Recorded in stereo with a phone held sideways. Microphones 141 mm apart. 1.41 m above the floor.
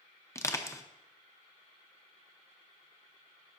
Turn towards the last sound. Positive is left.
turn(degrees=20)  # may be behind; listen again after turning